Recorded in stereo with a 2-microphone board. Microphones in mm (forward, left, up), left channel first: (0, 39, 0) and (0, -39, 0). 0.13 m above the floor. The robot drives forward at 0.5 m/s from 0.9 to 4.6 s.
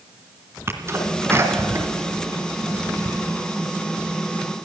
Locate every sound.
0.7 s a sneeze: 35° right (ahead or behind), 1.8 m; by 3.1 s 25° right (ahead or behind), 2 m